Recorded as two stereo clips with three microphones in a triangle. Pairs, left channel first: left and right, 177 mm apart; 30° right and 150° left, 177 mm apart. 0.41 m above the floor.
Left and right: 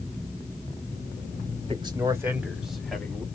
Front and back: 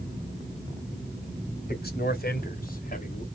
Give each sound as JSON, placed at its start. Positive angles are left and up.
{"t": 1.7, "sound": "a man speaking", "azimuth_deg": -35, "distance_m": 2.5}